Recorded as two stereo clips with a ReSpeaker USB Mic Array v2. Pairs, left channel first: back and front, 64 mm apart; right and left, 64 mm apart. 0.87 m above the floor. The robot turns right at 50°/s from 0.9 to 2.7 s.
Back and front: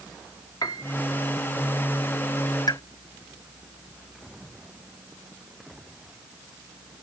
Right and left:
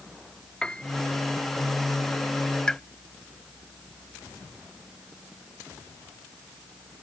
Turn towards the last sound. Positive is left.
turn(degrees=-165)